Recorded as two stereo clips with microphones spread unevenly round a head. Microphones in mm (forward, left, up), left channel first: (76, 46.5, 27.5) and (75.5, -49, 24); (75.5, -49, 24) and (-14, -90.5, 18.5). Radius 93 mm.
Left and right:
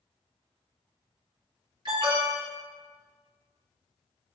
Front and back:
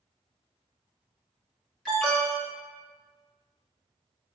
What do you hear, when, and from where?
1.9 s an alarm: 60° right, 1.9 m